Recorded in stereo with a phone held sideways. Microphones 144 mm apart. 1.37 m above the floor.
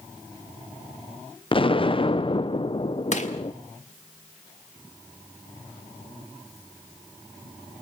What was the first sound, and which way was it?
An explosion, 40° left (ahead or behind).